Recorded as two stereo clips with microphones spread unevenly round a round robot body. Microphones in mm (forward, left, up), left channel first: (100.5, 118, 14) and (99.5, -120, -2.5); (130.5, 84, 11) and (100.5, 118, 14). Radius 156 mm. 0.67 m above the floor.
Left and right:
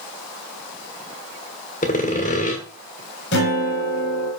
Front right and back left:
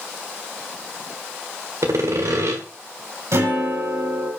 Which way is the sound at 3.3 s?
150° left.